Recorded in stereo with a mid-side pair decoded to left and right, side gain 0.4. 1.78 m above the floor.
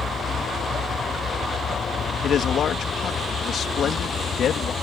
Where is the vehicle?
50° left.